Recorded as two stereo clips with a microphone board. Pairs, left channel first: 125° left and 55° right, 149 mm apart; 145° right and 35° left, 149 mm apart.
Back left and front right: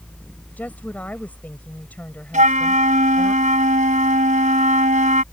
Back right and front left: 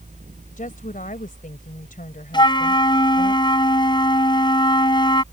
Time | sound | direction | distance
0.6 | a woman speaking | 160° right | ?
2.3 | a flute | 90° right | ?